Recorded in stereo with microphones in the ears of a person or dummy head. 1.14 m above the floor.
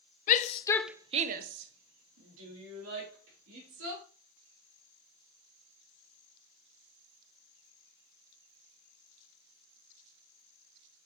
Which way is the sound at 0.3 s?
45° left (ahead or behind).